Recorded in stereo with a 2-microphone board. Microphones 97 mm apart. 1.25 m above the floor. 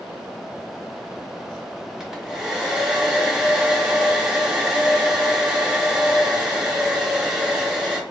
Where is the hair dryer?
5° right (ahead or behind), 0.6 m.